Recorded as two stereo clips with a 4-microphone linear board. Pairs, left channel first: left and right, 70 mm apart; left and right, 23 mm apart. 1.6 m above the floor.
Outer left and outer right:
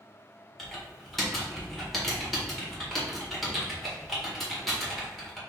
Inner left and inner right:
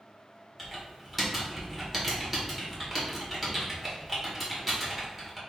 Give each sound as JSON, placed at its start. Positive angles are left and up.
{"t": 0.6, "sound": "typing on a keyboard", "side_deg": 0, "distance_m": 1.6}